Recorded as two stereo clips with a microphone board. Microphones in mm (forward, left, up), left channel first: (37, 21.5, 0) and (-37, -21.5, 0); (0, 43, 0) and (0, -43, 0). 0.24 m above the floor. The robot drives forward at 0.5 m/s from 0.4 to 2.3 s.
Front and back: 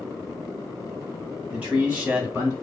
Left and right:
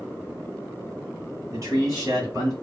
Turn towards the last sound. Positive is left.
turn(degrees=-100)